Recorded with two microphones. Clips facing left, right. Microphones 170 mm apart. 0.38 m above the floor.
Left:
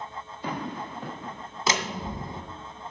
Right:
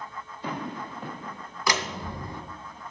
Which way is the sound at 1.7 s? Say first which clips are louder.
Left 1 dB; 25° left (ahead or behind).